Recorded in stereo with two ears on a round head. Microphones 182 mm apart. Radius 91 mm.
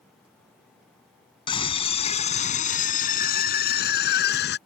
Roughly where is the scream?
Left.